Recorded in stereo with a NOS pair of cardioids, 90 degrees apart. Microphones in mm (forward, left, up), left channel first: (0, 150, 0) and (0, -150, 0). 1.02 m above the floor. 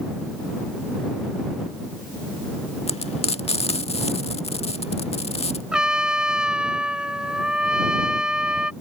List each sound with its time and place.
2.9 s frying: 20° left
5.7 s a trumpet: 5° right